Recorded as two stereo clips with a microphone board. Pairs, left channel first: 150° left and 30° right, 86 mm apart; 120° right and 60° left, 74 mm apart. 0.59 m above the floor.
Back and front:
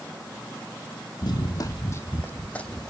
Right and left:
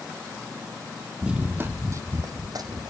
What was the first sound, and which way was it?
Running footsteps, 135° left.